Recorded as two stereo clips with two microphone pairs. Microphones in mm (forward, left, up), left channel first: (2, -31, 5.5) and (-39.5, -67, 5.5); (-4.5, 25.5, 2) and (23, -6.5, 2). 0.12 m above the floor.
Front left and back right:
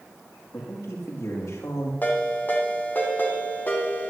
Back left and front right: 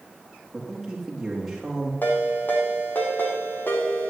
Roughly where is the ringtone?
Left.